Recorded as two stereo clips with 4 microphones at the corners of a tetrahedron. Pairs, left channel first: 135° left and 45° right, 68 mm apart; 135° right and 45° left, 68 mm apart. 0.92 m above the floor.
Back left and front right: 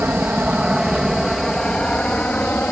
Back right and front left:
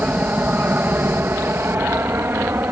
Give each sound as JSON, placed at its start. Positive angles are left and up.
{"t": 0.0, "sound": "an aircraft", "azimuth_deg": 0}